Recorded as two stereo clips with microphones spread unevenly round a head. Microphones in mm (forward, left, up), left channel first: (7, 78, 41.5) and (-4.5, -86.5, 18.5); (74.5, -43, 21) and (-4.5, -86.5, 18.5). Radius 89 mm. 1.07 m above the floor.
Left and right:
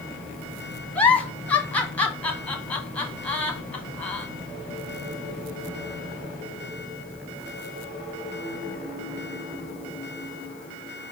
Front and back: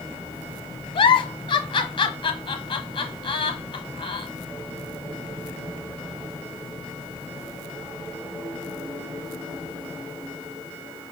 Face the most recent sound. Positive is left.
turn(degrees=5)